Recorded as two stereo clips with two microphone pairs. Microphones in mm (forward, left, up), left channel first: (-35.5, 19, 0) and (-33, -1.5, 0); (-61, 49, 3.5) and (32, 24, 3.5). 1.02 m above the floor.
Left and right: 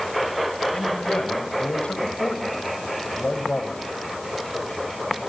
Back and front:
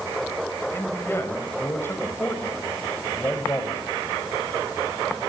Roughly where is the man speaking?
Left.